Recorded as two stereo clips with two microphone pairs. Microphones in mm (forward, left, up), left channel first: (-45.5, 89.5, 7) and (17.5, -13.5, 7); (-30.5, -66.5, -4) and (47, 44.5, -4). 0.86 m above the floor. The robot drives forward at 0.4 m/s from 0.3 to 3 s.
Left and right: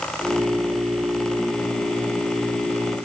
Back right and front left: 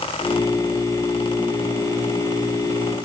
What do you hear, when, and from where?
Only background noise.